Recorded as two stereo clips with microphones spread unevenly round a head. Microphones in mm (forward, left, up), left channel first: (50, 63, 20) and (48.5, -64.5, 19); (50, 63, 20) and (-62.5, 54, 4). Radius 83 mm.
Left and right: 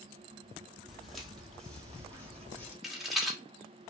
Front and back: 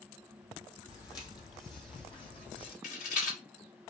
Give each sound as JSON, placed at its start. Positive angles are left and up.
{"t": 0.9, "sound": "footsteps", "azimuth_deg": -5, "distance_m": 1.9}
{"t": 2.8, "sound": "a rattle", "azimuth_deg": 0, "distance_m": 1.8}